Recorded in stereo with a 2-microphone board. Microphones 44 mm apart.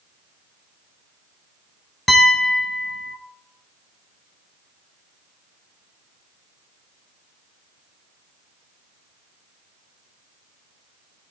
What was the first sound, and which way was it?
A piano, centre (ahead or behind).